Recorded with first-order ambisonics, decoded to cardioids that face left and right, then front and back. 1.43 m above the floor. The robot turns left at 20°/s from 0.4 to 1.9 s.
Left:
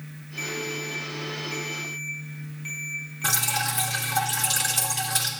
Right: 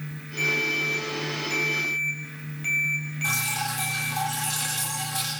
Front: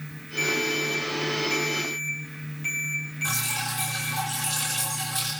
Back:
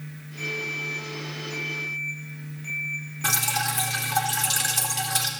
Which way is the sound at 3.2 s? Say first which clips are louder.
Left 2 dB, back 5 dB; 150° left.